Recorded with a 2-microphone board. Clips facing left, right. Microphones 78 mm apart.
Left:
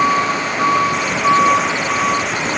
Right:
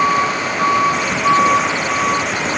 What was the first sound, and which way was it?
Only background noise.